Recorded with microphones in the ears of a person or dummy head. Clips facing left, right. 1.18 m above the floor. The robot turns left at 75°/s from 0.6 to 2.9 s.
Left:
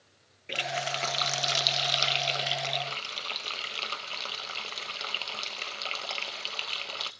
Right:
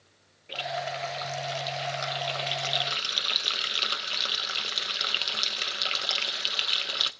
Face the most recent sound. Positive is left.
turn(degrees=-20)